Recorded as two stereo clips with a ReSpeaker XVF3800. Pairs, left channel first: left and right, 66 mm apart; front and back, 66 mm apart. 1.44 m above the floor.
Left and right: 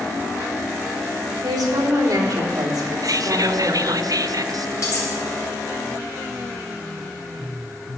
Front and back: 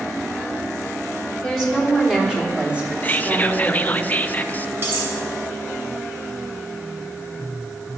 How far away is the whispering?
About 0.6 m.